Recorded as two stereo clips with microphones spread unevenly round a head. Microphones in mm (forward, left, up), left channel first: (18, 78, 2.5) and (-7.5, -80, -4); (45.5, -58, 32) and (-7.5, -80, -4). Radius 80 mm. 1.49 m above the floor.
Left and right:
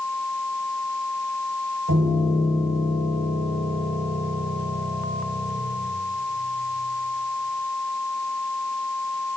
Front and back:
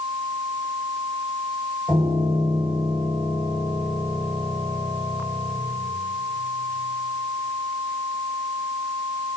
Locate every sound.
1.9 s a piano: 100° right, 9.5 m